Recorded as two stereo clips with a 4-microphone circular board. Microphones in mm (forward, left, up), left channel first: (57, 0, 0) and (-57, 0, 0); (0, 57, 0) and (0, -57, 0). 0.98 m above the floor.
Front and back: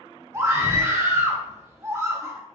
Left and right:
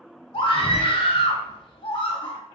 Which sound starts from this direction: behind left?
A scream, at 0.3 s.